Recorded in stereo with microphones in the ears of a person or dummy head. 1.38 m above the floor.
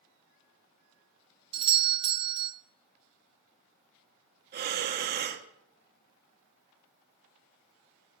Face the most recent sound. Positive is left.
turn(degrees=-45)  # may be behind; listen again after turning